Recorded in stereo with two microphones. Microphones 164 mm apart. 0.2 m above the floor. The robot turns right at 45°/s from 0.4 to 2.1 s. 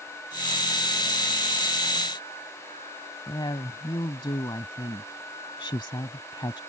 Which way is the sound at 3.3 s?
30° left (ahead or behind).